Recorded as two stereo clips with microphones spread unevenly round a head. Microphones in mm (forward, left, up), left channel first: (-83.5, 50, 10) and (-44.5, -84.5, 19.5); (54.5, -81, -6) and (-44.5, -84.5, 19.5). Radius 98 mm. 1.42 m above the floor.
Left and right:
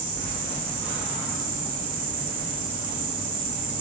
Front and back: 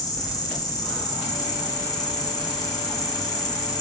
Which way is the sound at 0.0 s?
40° right.